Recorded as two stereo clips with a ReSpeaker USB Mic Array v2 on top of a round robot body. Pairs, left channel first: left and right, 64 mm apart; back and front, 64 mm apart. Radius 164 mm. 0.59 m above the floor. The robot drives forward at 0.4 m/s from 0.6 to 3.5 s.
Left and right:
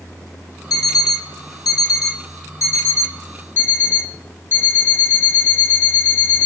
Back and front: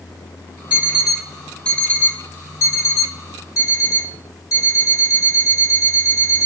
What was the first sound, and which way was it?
An alarm clock, 70° left.